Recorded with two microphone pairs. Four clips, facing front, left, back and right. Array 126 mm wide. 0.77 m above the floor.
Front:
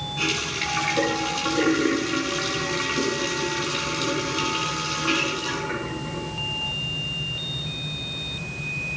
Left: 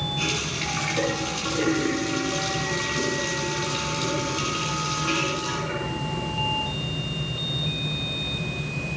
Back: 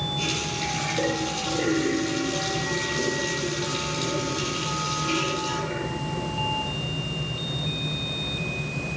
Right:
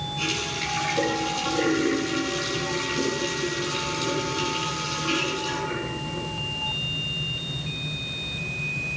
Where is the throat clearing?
I don't hear throat clearing.